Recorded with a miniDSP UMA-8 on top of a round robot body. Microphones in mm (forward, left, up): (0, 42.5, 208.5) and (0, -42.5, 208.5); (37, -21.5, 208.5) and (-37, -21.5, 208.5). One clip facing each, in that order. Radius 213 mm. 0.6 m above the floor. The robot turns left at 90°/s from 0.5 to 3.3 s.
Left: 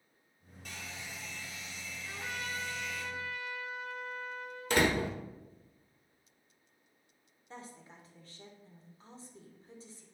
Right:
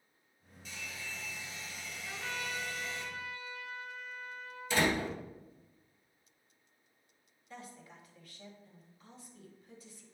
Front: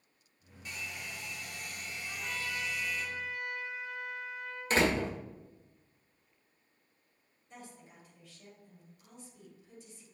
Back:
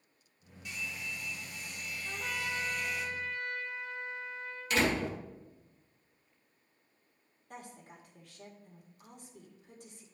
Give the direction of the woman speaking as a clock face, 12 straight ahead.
7 o'clock.